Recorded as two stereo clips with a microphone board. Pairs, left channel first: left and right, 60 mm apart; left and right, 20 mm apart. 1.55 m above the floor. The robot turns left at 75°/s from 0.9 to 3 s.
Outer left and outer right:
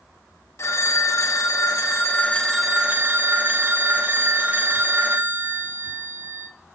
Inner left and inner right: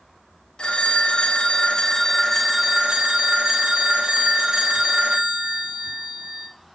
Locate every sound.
0.6 s a phone ringing: 125° left, 1.5 m; by 6.5 s 30° right, 1.5 m